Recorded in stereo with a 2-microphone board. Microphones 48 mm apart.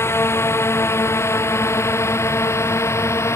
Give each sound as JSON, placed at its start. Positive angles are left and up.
{"t": 0.0, "sound": "a drone", "side_deg": 65}